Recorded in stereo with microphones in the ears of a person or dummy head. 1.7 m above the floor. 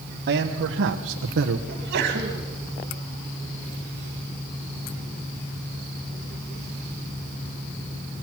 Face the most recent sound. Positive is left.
turn(degrees=-55)  # may be behind; listen again after turning